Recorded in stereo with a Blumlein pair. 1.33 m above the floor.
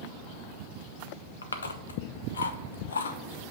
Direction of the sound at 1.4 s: 70° left.